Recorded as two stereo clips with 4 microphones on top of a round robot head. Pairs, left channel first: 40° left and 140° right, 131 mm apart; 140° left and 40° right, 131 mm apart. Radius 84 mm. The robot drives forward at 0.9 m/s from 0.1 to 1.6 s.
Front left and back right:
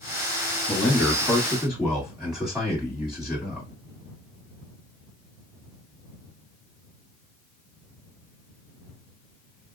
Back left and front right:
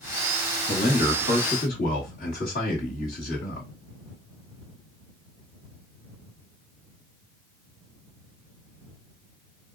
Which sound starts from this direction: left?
A man speaking, at 0.7 s.